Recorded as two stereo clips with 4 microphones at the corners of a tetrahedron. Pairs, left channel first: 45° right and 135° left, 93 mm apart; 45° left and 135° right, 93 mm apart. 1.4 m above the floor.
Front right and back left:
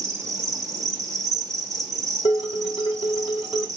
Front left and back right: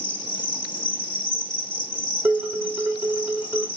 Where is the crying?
I don't hear crying.